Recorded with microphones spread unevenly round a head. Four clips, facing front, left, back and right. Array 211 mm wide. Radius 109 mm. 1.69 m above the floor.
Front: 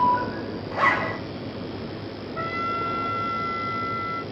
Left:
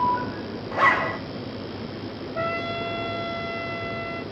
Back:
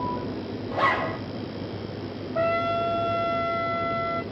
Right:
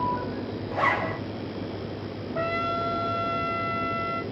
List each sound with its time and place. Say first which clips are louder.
0.7 s a zipper: left 4 dB, front 1 dB; 150° left, 1.2 m
2.4 s a trumpet: right 1 dB, back 5 dB; 165° right, 2.5 m